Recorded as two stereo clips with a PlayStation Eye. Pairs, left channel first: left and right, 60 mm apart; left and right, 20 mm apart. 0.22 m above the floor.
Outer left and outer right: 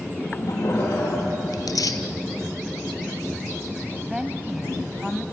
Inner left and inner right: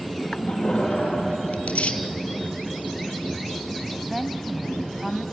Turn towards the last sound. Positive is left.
turn(degrees=-5)  # may be behind; listen again after turning